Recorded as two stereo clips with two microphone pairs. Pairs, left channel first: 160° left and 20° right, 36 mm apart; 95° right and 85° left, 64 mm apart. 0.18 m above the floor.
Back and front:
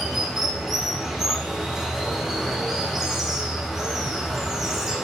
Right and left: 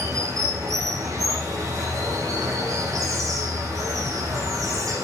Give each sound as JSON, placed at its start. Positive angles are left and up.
{"t": 0.0, "sound": "running water", "azimuth_deg": 60, "distance_m": 5.5}